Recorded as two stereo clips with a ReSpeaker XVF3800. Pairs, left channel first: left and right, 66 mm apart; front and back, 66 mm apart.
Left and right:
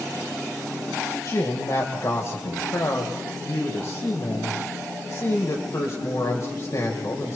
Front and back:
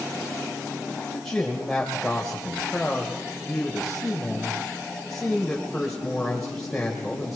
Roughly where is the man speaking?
Left.